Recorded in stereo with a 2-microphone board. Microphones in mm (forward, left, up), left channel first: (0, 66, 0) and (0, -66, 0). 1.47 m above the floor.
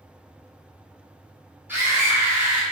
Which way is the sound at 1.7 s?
15° right (ahead or behind).